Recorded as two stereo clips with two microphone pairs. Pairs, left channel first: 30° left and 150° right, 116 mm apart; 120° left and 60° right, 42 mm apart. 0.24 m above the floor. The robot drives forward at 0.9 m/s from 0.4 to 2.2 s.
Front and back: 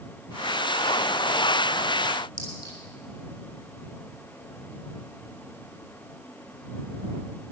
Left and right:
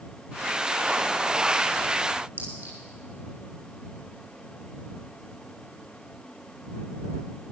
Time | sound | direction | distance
2.4 | a clink | 25° right | 7.5 m